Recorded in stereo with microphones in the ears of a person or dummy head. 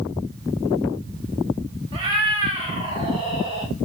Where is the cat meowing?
25° right (ahead or behind), 1.7 m; by 3.7 s 15° right (ahead or behind), 0.8 m.